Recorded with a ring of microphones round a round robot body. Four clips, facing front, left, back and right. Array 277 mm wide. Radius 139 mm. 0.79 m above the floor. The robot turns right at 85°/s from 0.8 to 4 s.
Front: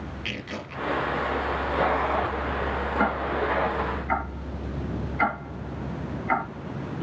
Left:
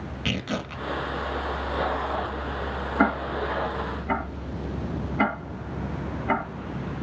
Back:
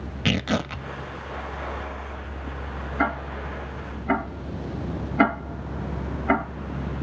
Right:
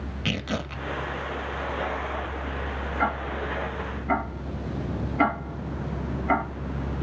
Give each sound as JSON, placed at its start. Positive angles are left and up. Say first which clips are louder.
{"t": 0.2, "sound": "tearing paper", "louder": "even, back 15 dB", "azimuth_deg": 180, "distance_m": 0.9}
{"t": 3.0, "sound": "ticking", "louder": "left 4 dB, even", "azimuth_deg": 95, "distance_m": 4.5}